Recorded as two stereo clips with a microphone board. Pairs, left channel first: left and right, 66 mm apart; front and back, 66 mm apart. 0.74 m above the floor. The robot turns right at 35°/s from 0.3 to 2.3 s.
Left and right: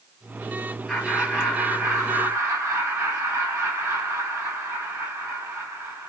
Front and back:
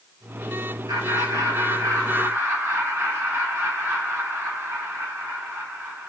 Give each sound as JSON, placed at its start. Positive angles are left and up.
{"t": 0.9, "sound": "laughter", "azimuth_deg": -175, "distance_m": 2.0}